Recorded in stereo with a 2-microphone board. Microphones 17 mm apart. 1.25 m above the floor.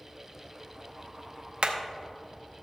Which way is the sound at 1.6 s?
75° right (ahead or behind).